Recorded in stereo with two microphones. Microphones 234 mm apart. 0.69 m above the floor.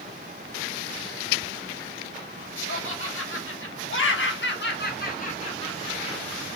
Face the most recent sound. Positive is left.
turn(degrees=10)  # may be behind; listen again after turning